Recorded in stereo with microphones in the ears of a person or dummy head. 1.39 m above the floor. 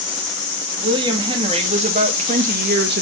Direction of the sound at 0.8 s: 25° right (ahead or behind).